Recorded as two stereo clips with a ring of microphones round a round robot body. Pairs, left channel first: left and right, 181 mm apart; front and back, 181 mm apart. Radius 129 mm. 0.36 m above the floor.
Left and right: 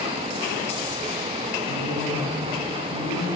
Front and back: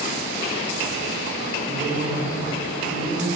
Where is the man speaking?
140° left, 4.5 m.